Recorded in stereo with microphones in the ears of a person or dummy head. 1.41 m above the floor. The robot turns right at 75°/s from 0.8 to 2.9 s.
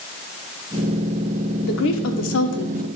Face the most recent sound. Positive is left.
turn(degrees=145)